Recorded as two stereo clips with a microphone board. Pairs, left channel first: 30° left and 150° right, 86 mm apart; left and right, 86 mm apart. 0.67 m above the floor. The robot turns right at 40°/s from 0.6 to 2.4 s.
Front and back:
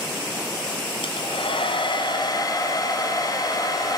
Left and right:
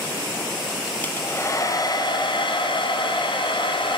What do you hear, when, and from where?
1.0 s a hair dryer: 20° left, 2.5 m; by 4.0 s 75° left, 2.5 m